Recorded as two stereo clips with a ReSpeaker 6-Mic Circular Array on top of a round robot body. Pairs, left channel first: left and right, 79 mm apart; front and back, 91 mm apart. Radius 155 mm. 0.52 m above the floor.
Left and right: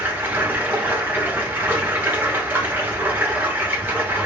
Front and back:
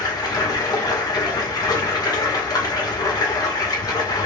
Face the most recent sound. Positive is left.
turn(degrees=-30)